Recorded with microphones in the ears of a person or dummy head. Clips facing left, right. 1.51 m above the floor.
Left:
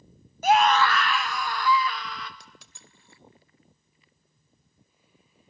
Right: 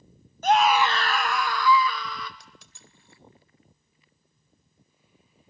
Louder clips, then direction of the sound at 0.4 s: Even; 10° left (ahead or behind).